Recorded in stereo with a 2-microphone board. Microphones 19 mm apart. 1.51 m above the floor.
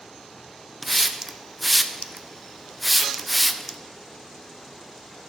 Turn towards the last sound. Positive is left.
turn(degrees=0)  # may be behind; listen again after turning